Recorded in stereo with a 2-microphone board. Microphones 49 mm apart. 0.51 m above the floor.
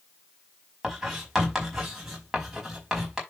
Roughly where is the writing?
Centre.